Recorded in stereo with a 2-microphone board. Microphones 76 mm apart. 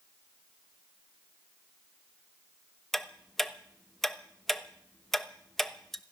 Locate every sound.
2.9 s ticking: 5° left (ahead or behind), 1.0 m